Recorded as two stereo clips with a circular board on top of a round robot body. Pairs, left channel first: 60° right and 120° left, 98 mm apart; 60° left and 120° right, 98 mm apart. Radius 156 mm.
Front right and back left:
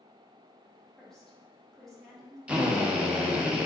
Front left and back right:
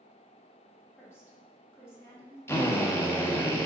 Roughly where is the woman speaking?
Ahead.